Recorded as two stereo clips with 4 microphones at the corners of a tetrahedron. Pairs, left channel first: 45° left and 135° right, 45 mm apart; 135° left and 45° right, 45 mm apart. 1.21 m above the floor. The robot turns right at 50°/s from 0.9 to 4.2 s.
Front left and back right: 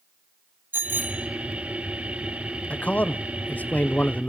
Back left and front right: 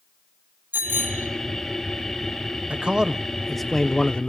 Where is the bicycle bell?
95° right, 2 m; by 1.3 s 75° right, 2 m.